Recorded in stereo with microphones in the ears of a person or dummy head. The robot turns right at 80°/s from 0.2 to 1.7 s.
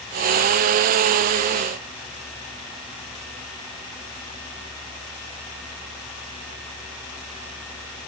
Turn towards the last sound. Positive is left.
No sound to turn to.